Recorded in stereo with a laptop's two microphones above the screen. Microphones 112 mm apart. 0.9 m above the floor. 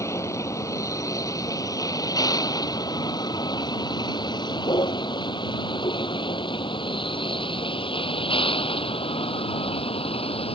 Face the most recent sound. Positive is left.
turn(degrees=60)  # may be behind; listen again after turning